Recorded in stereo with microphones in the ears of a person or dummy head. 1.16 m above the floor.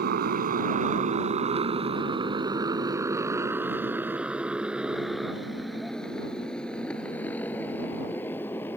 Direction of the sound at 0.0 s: 55° right (ahead or behind).